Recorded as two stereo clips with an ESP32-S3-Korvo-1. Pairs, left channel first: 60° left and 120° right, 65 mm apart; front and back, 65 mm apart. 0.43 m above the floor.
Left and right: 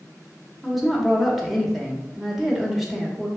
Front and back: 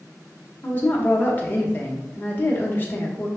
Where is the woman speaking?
35° right, 1.1 m.